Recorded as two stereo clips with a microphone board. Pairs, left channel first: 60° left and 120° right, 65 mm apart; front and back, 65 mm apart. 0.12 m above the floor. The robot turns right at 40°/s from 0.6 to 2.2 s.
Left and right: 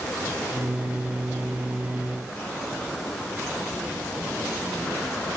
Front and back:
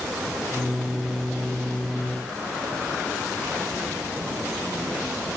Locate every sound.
Only background noise.